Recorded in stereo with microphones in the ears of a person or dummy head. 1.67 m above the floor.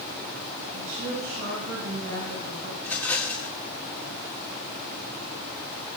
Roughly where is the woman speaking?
Right.